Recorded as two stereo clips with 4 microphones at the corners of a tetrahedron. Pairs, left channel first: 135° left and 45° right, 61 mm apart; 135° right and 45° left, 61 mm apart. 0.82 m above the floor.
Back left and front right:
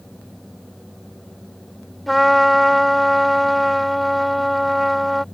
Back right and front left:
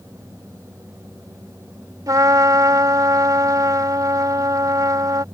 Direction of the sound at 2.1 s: 45° left.